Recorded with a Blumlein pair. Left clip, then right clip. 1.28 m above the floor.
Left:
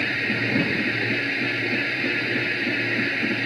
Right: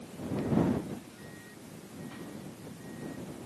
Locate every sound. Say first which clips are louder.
0.0 s a machine running: left 15 dB; 45° left